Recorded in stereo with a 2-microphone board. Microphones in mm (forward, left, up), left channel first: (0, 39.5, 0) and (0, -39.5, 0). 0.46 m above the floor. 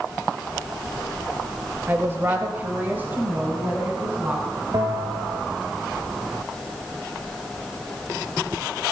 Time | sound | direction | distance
1.9 | a woman speaking | 30° right (ahead or behind) | 1.5 m
4.7 | a bell | 50° right (ahead or behind) | 1.5 m